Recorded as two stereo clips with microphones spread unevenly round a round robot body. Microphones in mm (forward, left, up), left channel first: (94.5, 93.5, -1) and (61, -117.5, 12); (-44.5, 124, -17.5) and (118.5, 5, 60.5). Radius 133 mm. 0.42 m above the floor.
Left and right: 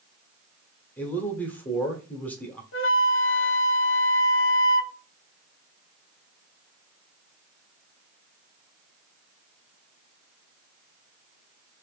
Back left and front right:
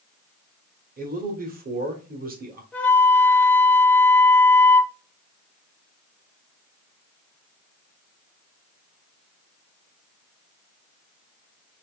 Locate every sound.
1.0 s a man speaking: 10° left, 1.1 m
2.7 s a flute: 55° left, 0.6 m